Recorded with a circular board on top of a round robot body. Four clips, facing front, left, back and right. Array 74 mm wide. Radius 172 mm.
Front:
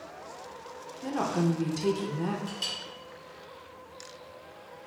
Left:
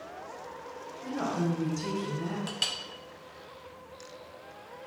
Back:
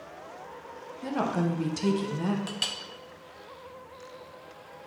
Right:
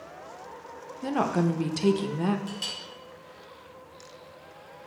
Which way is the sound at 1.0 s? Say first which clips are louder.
Right 5 dB, even; 95° right.